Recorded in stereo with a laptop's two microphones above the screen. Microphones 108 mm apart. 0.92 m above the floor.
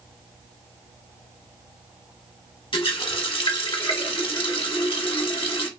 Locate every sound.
2.7 s a running tap: 55° left (ahead or behind), 1.4 m